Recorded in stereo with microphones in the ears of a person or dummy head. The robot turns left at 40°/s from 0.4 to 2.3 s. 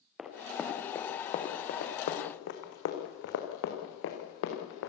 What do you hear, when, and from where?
0.2 s running footsteps: centre (ahead or behind), 3 m; by 4.9 s 70° left (ahead or behind), 5.5 m